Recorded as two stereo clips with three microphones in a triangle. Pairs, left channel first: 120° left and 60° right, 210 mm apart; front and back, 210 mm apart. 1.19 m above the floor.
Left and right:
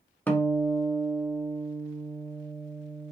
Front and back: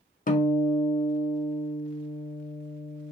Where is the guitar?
40° left, 0.5 m.